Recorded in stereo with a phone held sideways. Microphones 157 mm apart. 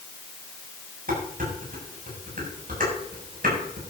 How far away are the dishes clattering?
About 7.5 m.